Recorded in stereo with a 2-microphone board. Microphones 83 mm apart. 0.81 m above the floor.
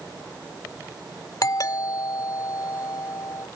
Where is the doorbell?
50° left (ahead or behind).